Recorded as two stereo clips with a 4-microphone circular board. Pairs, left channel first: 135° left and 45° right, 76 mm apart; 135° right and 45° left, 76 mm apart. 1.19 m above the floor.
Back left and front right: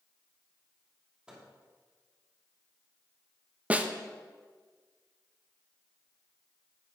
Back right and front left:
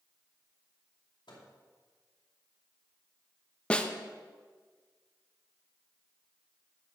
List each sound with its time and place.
1.3 s a microwave: 125° right, 2 m
3.7 s a snare drum: 85° right, 0.6 m